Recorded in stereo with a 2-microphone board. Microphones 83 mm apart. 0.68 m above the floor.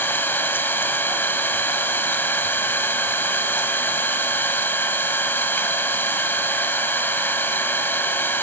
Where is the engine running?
25° left (ahead or behind), 1.0 m.